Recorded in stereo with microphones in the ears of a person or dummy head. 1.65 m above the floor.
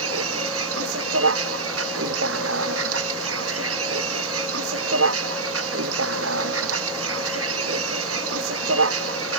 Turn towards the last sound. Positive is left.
turn(degrees=-85)